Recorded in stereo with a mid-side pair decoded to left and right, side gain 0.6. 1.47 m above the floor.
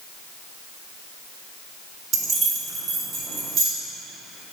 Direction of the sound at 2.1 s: 45° right.